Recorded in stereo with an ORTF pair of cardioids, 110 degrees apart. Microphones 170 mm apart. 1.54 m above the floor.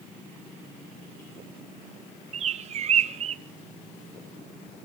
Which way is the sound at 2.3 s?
45° right.